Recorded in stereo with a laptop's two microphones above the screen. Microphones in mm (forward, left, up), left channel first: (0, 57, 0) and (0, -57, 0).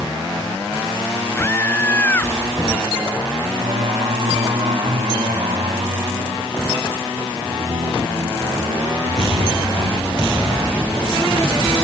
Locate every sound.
1.4 s a scream: 20° left (ahead or behind)
3.6 s singing: 60° right (ahead or behind)